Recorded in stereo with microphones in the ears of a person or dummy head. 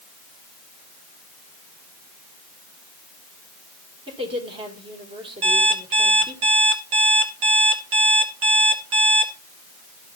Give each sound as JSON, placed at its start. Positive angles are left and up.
{"t": 4.1, "sound": "a woman speaking", "side_deg": -25, "distance_m": 1.9}
{"t": 5.4, "sound": "an alarm clock", "side_deg": -40, "distance_m": 1.3}